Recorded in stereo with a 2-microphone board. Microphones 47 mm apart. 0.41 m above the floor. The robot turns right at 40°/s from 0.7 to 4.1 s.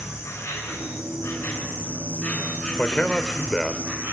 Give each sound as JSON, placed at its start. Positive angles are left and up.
{"t": 0.0, "sound": "an insect", "azimuth_deg": 90, "distance_m": 8.0}
{"t": 2.8, "sound": "a man speaking", "azimuth_deg": 135, "distance_m": 1.0}